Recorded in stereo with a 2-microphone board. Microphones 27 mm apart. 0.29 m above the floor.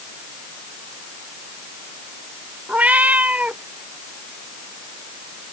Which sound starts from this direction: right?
A cat meowing, at 2.7 s.